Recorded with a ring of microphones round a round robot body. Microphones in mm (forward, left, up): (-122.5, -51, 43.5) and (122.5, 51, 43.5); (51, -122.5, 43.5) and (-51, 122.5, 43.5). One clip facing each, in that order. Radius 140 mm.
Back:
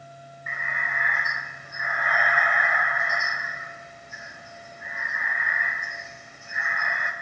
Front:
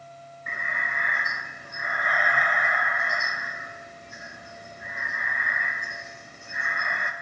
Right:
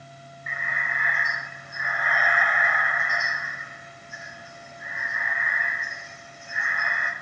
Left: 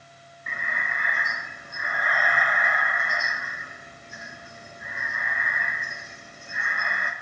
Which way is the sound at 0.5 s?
70° left.